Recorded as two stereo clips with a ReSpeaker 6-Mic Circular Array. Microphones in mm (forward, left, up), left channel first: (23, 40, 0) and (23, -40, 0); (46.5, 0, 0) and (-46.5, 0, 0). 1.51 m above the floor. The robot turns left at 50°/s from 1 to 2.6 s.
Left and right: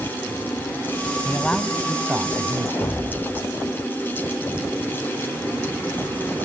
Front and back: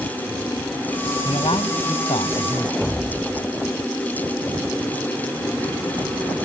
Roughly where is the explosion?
Left.